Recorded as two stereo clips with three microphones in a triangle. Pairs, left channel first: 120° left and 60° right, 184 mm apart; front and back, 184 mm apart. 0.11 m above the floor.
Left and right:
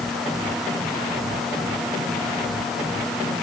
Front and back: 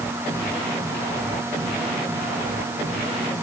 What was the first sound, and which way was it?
Only background noise.